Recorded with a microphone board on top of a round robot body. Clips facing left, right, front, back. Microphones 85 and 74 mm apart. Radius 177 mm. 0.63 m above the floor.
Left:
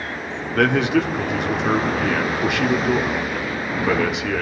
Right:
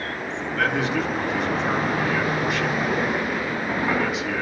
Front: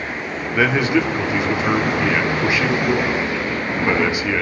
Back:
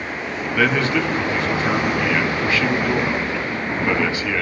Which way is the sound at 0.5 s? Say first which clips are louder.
Left 6 dB, front 2 dB; 70° left.